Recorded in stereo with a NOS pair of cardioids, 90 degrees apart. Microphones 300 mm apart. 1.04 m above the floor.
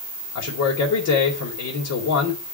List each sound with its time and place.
0.3 s a man speaking: 65° left, 4.5 m